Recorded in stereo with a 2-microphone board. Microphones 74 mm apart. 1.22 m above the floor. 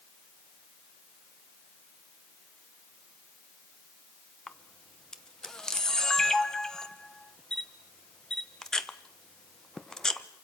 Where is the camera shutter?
10° left (ahead or behind), 1.2 m.